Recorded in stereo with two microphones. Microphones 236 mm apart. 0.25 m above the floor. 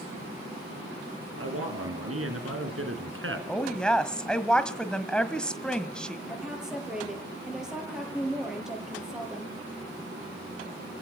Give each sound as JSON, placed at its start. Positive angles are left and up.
{"t": 1.4, "sound": "a man speaking", "side_deg": -70, "distance_m": 5.0}
{"t": 3.5, "sound": "a woman speaking", "side_deg": 5, "distance_m": 1.6}
{"t": 6.3, "sound": "a woman speaking", "side_deg": 0, "distance_m": 6.5}